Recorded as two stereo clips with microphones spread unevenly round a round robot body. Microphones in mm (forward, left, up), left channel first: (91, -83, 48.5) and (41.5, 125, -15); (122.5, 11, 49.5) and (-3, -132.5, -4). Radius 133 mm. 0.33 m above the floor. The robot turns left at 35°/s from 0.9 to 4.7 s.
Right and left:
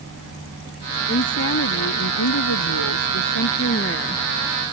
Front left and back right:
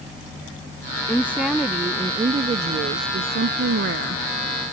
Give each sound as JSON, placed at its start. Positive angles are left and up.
{"t": 1.1, "sound": "a woman speaking", "azimuth_deg": -30}